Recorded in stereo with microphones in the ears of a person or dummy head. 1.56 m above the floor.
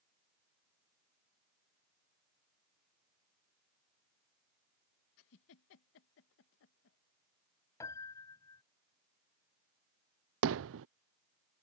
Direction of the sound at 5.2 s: 65° left (ahead or behind).